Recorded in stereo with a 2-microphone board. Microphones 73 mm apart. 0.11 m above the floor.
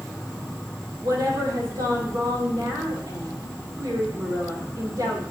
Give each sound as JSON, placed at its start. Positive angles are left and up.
{"t": 0.0, "sound": "an insect", "side_deg": -10, "distance_m": 3.0}
{"t": 1.0, "sound": "a woman speaking", "side_deg": -65, "distance_m": 4.0}